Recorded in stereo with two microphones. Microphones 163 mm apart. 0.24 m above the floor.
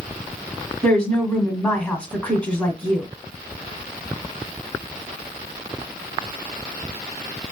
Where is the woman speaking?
10° left (ahead or behind), 1.6 m.